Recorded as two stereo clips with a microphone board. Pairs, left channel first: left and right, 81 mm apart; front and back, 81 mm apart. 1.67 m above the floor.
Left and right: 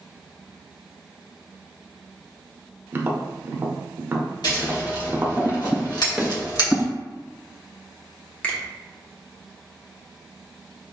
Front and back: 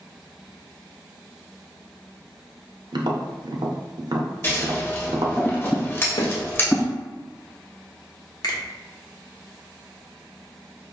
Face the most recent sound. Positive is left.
turn(degrees=20)